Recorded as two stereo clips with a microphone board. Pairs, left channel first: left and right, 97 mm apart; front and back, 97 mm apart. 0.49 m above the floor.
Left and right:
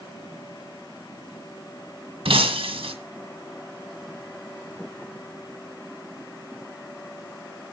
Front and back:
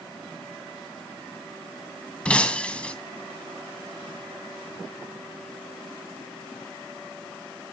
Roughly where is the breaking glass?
Right.